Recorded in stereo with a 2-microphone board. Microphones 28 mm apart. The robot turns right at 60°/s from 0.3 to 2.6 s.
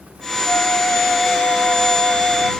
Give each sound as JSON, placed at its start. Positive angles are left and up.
{"t": 0.5, "sound": "a flute", "azimuth_deg": 85}